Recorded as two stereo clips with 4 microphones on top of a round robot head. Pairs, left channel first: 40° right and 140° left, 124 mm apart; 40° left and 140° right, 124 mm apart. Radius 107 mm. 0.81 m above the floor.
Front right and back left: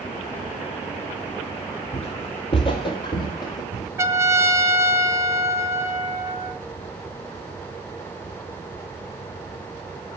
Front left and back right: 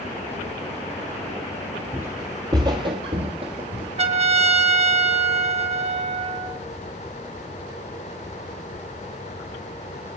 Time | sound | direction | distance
1.9 | footsteps | 70° right | 1.0 m
4.0 | a trumpet | 155° right | 1.2 m